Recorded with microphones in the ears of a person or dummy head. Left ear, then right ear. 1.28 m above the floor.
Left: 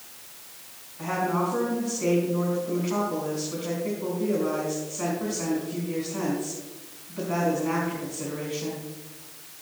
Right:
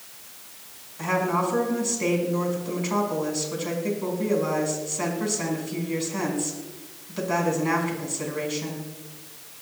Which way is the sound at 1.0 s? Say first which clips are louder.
Right 2 dB; 75° right (ahead or behind).